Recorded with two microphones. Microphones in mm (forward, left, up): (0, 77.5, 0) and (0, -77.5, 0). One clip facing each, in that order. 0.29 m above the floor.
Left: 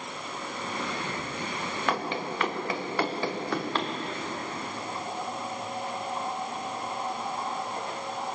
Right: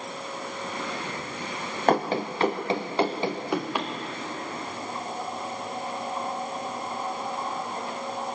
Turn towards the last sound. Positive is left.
turn(degrees=-10)  # may be behind; listen again after turning